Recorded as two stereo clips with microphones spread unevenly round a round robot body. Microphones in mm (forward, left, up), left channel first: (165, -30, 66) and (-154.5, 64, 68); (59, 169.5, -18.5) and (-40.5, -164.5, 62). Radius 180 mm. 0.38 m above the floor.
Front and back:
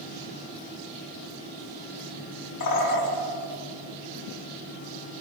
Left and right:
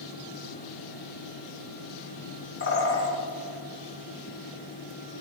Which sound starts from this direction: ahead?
A bird, at 2.6 s.